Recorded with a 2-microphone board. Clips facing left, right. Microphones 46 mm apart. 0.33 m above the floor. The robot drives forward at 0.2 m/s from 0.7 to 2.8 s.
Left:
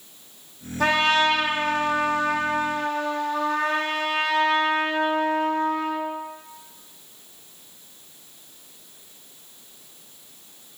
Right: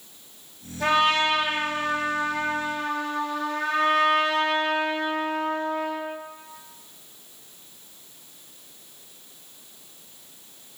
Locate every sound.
0.8 s a trumpet: 70° left (ahead or behind), 0.7 m; by 6.1 s 65° left (ahead or behind), 0.7 m